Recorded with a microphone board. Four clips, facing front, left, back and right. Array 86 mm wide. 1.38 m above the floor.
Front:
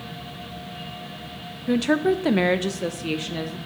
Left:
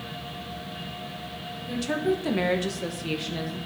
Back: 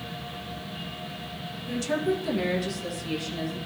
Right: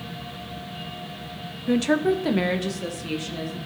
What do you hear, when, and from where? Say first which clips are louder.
1.7 s a woman speaking: right 6 dB, front 7 dB; 45° right, 0.5 m; by 3.6 s 15° left, 1.1 m